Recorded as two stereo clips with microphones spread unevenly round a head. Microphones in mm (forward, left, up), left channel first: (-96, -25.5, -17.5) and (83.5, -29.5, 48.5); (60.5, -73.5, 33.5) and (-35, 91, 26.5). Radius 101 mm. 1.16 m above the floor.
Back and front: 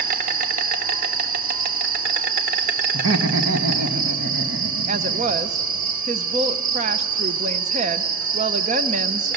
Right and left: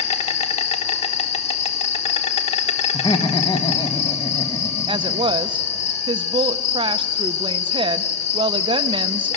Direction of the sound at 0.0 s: 10° right.